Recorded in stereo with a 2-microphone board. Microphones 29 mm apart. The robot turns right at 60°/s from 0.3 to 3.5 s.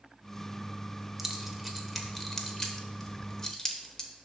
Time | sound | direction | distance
1.2 | keys jangling | 10° right (ahead or behind) | 0.8 m